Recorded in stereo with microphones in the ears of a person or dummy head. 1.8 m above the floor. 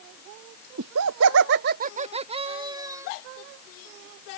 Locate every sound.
0.8 s laughter: 70° right (ahead or behind); by 3.1 s 20° right (ahead or behind)